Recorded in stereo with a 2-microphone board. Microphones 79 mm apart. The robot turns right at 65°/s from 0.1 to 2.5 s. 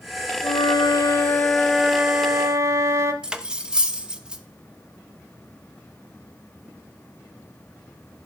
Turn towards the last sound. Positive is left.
turn(degrees=-10)  # may be behind; listen again after turning